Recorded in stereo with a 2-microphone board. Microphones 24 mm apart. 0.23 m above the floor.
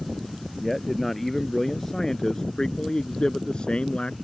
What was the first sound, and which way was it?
A man speaking, 5° left (ahead or behind).